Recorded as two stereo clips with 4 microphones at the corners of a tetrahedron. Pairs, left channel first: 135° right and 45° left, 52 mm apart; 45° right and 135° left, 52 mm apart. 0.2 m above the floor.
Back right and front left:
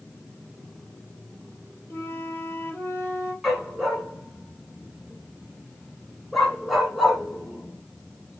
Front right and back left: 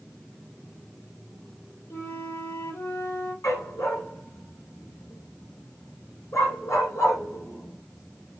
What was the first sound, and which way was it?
A flute, 85° right.